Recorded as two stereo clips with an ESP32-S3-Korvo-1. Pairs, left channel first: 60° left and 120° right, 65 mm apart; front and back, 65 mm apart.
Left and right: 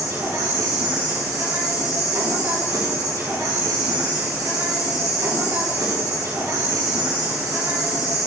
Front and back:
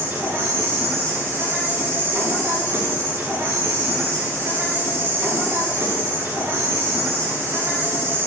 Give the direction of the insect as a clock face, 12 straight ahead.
4 o'clock.